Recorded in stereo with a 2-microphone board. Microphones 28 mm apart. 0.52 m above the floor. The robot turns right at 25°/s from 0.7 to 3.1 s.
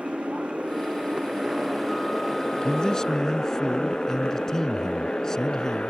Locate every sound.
0.0 s a motorcycle: 55° right (ahead or behind); by 5.9 s 45° left (ahead or behind)
2.6 s a man speaking: 35° left (ahead or behind); by 5.9 s 20° left (ahead or behind)